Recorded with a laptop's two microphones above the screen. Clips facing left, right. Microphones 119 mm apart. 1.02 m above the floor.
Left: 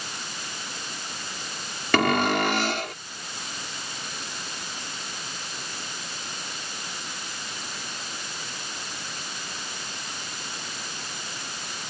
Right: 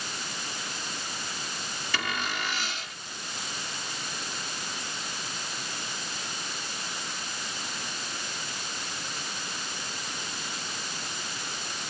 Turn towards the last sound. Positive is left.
turn(degrees=70)  # may be behind; listen again after turning